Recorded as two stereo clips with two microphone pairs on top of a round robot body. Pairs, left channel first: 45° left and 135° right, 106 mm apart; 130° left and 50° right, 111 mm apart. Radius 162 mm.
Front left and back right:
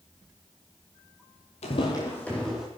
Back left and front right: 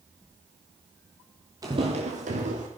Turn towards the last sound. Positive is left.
turn(degrees=-55)